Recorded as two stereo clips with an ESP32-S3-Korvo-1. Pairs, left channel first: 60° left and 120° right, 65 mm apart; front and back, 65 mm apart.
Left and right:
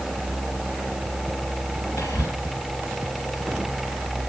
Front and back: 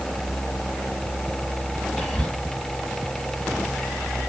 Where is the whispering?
95° left, 2.5 m.